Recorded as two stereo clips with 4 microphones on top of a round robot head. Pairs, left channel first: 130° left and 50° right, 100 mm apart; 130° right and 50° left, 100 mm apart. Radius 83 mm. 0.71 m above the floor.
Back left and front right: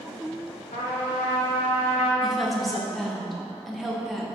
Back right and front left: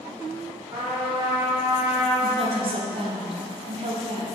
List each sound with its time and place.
0.7 s a trumpet: 110° left, 1.1 m
2.2 s a woman speaking: 40° left, 0.8 m